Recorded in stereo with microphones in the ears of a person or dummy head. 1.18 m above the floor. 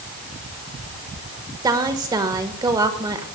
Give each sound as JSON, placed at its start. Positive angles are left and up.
{"t": 1.6, "sound": "a woman speaking", "side_deg": -20, "distance_m": 1.4}